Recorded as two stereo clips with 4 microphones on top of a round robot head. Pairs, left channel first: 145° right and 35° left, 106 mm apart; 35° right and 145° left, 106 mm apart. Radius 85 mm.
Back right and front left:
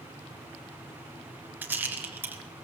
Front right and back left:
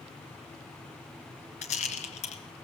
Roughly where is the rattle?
Ahead right.